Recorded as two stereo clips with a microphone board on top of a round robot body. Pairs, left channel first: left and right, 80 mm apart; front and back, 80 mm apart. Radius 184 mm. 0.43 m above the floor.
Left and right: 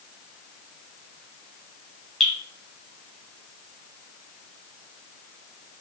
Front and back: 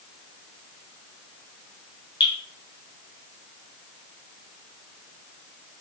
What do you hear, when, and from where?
2.2 s dripping: 5° left, 2 m